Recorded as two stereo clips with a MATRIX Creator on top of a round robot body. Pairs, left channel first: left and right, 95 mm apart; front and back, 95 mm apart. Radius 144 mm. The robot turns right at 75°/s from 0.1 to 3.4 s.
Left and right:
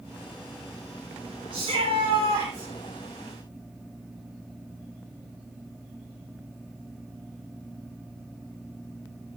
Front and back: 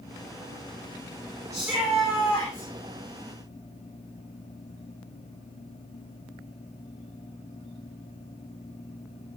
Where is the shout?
125° right, 6 m; by 2.7 s 35° right, 6 m.